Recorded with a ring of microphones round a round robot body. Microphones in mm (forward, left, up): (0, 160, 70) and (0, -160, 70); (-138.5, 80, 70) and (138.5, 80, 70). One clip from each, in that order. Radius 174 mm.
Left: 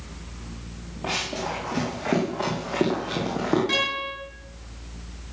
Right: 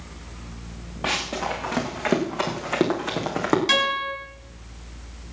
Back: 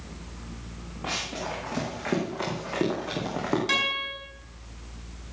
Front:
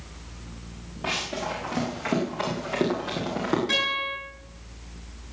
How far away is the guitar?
About 6.5 m.